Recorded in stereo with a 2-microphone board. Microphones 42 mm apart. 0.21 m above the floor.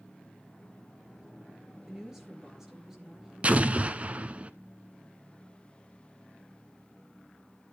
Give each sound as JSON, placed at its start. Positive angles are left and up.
{"t": 1.9, "sound": "a woman speaking", "side_deg": -10, "distance_m": 4.0}
{"t": 3.4, "sound": "an explosion", "side_deg": -35, "distance_m": 0.7}